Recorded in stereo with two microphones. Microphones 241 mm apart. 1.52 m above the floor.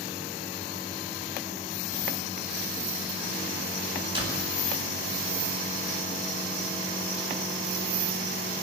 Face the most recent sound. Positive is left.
turn(degrees=-20)  # may be behind; listen again after turning